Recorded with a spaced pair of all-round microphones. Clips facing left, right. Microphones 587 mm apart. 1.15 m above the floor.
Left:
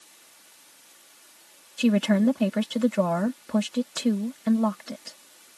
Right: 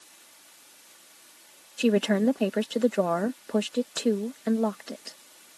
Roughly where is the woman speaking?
Left.